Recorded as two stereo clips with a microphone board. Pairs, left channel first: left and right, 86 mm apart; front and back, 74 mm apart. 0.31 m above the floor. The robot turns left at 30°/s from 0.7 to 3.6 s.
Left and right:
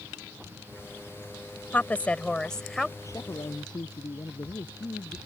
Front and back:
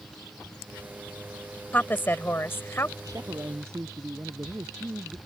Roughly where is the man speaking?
Behind left.